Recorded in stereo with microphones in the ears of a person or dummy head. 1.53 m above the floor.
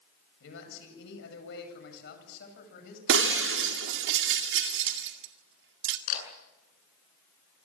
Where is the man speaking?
75° left (ahead or behind), 8.5 m; by 3.0 s 50° left (ahead or behind), 8.5 m.